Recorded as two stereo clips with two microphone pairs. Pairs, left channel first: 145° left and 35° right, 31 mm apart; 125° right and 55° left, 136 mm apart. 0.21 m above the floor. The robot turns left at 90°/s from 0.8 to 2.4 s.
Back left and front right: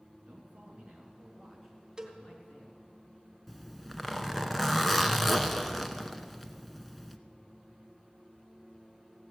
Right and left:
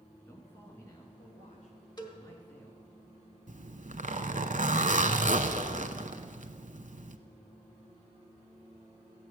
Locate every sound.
0.3 s a man speaking: 55° right, 2.5 m; by 2.8 s 160° left, 2.5 m
2.0 s a cowbell: 85° right, 1.3 m; by 2.2 s 105° right, 1.3 m
3.5 s a zipper: 55° left, 0.7 m